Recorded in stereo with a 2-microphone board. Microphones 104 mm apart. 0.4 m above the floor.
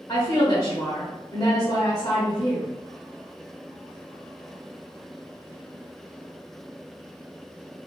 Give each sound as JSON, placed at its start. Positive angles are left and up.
{"t": 0.1, "sound": "a woman speaking", "side_deg": 40, "distance_m": 1.1}